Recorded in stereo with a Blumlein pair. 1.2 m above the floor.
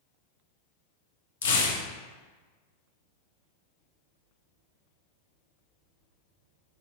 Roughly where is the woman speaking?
I don't hear a woman speaking.